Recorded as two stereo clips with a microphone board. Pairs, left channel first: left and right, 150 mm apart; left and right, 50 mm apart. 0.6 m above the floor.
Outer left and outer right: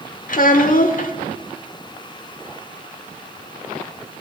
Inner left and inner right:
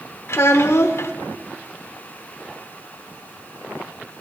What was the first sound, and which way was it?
A child speaking, 70° left (ahead or behind).